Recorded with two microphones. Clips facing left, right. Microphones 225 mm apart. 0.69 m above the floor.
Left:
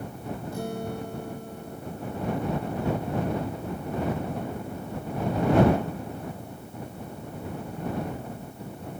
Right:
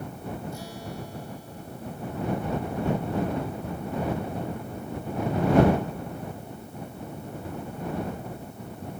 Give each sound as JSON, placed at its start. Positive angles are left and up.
{"t": 0.5, "sound": "a guitar", "side_deg": 55}